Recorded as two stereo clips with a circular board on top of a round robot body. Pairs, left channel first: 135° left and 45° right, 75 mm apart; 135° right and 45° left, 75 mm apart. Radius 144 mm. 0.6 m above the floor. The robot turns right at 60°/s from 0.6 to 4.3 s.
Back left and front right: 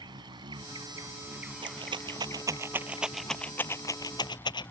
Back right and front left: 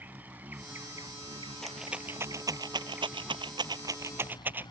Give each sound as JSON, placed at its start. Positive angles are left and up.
{"t": 0.0, "sound": "an insect", "azimuth_deg": -25}
{"t": 1.6, "sound": "a rattle", "azimuth_deg": -50}